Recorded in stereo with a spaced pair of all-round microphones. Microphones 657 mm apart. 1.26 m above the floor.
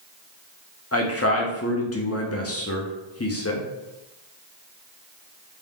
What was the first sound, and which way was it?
A man speaking, 25° left (ahead or behind).